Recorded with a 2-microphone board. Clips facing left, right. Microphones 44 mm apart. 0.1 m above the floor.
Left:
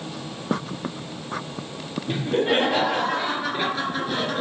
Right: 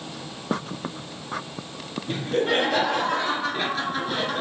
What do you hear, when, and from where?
2.1 s laughter: 25° left (ahead or behind), 2 m; by 4.4 s 10° right (ahead or behind), 1.3 m